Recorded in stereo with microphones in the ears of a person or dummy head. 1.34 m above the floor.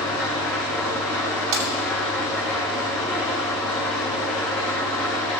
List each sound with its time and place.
0.0 s an engine running: 5° left (ahead or behind), 5.5 m
1.5 s breaking glass: 75° right (ahead or behind), 1.7 m